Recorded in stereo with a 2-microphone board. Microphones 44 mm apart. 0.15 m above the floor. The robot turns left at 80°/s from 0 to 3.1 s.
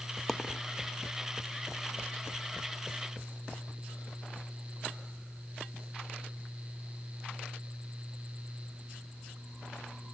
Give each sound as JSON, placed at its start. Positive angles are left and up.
{"t": 0.3, "sound": "a dropped coin", "side_deg": 5, "distance_m": 0.6}